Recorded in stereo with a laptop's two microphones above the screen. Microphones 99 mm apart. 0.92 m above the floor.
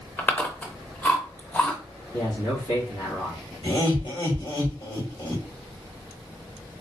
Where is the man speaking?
75° left (ahead or behind), 1.6 m.